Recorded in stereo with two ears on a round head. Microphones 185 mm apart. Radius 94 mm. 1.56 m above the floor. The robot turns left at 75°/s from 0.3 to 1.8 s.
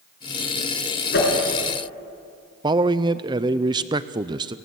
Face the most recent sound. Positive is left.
turn(degrees=-20)  # may be behind; listen again after turning